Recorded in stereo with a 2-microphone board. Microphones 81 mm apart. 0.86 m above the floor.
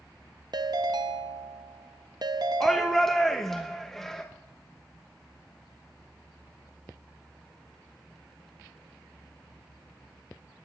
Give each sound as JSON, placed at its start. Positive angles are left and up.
{"t": 0.5, "sound": "a ringtone", "side_deg": -60, "distance_m": 0.6}
{"t": 2.6, "sound": "a shout", "side_deg": 5, "distance_m": 0.9}